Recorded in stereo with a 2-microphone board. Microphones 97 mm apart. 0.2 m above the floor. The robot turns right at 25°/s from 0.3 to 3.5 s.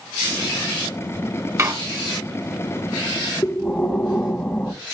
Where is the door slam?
35° right (ahead or behind), 2.5 m; by 1.7 s 30° right (ahead or behind), 2.5 m.